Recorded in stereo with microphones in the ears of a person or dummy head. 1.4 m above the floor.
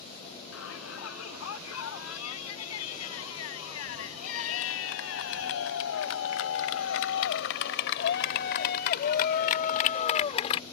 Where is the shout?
85° left; by 10.6 s 35° left (ahead or behind).